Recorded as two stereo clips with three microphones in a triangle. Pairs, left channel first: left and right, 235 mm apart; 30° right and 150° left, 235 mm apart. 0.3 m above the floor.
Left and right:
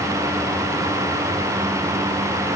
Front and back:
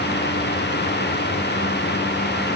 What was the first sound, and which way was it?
Only background noise.